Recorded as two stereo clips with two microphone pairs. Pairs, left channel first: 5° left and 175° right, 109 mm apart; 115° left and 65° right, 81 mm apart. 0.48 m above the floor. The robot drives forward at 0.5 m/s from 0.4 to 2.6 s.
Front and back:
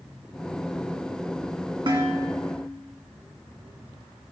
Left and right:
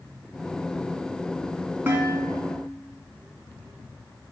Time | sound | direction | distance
1.9 | dishes clattering | 130° right | 3 m